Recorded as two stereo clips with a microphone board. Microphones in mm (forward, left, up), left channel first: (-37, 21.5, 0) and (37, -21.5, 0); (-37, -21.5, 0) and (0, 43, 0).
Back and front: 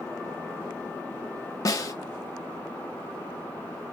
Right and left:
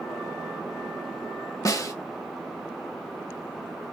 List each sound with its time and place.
1.6 s a snare drum: 160° right, 0.8 m